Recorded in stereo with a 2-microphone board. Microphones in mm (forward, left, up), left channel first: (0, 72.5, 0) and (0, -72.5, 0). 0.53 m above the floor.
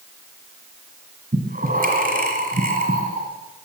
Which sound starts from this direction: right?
Breathing, at 1.3 s.